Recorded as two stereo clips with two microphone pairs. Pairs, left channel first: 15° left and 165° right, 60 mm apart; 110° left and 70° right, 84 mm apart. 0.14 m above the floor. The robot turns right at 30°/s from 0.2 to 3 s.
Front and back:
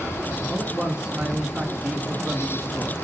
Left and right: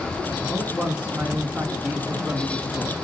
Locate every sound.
0.5 s a man speaking: 140° right, 1.7 m; by 3.0 s 60° right, 1.7 m